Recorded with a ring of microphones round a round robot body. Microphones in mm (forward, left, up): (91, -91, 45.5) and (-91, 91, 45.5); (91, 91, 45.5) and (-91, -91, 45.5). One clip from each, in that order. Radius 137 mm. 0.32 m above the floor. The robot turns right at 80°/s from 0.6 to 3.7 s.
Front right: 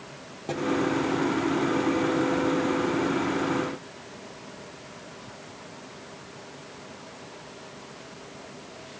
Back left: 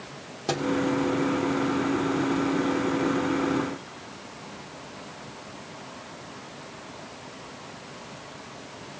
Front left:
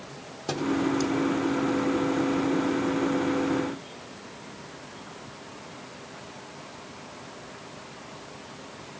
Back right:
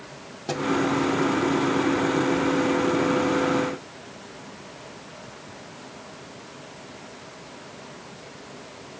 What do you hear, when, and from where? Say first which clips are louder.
0.5 s a thud: back left 3 dB, back right 2 dB; 125° left, 4.5 m; by 0.7 s 130° left, 4.5 m